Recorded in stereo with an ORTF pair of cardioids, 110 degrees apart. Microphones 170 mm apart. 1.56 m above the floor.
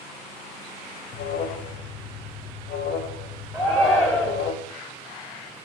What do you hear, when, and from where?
1.1 s an alarm: 60° left, 0.6 m
3.5 s a shout: 5° left, 0.6 m